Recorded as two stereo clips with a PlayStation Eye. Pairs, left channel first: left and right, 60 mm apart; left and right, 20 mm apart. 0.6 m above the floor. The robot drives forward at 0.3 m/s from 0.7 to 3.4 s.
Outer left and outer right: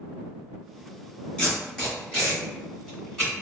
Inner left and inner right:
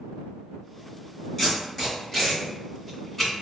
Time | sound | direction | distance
1.4 | tape being pulled | 15° left (ahead or behind) | 2.0 m